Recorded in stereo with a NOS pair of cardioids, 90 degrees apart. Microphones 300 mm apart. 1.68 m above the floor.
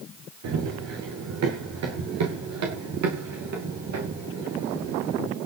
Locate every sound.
0.4 s running footsteps: 70° right, 6 m; by 5.4 s 60° right, 9 m